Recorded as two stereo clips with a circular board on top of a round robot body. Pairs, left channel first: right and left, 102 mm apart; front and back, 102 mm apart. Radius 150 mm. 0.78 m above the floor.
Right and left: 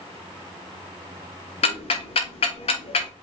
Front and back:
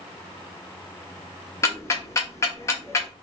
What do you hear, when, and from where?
1.6 s ticking: 65° right, 0.7 m